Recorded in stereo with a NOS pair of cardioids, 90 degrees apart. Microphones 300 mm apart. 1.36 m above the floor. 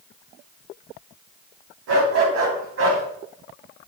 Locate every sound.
1.9 s a dog barking: 55° right, 4.5 m; by 3.0 s 50° right, 4.5 m